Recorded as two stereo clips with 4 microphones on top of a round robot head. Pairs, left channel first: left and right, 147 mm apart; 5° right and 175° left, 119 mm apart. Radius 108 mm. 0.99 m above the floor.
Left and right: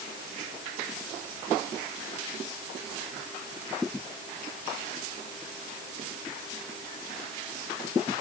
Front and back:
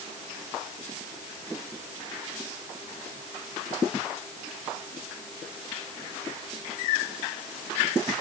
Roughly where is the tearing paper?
No tearing paper in this recording.